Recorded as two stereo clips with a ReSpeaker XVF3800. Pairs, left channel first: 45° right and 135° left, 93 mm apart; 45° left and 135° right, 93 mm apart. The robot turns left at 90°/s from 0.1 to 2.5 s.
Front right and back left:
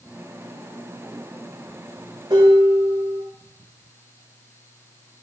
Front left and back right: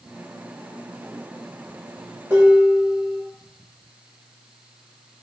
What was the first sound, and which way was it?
Dishes clattering, 160° left.